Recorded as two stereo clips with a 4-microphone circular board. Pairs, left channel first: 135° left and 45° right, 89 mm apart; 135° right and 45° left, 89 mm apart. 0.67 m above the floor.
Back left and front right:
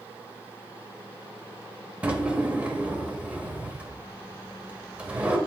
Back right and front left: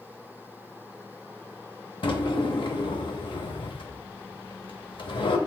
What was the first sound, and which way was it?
A drawer, 120° right.